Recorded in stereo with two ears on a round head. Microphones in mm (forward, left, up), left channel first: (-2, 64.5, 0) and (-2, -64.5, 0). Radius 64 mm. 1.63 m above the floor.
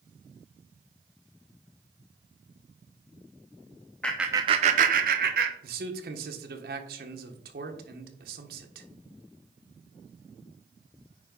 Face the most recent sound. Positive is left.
turn(degrees=-70)  # may be behind; listen again after turning